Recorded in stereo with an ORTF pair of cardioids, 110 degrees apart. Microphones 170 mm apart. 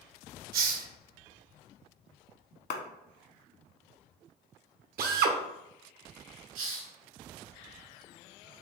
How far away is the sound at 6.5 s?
About 1.6 m.